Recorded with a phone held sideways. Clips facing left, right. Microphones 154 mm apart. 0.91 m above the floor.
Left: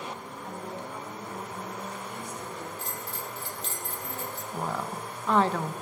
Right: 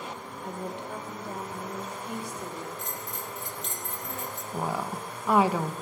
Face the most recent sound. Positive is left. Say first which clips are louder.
# right 2 dB
turn(degrees=-10)  # may be behind; listen again after turning